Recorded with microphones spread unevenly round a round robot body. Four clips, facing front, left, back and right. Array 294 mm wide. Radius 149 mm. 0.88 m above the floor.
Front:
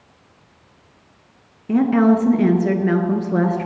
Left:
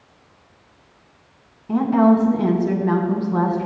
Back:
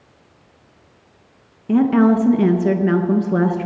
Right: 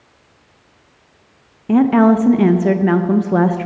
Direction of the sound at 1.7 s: 115° right.